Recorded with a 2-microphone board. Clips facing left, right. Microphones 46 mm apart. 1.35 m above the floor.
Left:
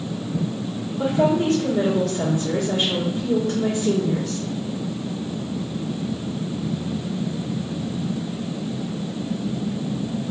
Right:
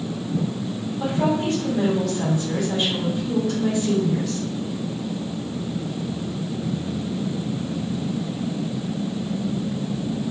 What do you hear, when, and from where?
1.0 s a woman speaking: 45° left (ahead or behind), 2.0 m